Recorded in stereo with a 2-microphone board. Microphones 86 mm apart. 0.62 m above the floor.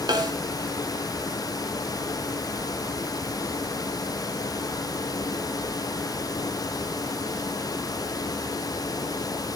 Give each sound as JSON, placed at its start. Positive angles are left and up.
{"t": 0.1, "sound": "a snare drum", "side_deg": -55, "distance_m": 2.5}